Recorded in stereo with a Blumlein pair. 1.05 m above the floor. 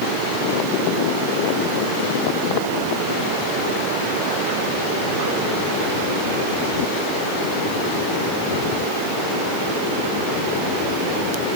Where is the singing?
I don't hear singing.